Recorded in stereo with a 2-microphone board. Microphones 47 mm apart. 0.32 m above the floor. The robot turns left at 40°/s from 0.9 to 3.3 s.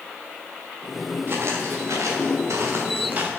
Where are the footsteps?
45° right (ahead or behind), 2.5 m; by 3.3 s 25° right (ahead or behind), 1.8 m.